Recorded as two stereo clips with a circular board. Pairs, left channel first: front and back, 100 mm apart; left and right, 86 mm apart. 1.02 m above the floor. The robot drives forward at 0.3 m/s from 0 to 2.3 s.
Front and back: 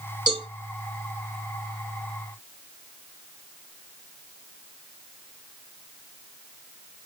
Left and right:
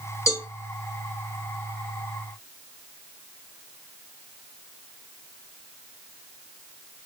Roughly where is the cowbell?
Behind left.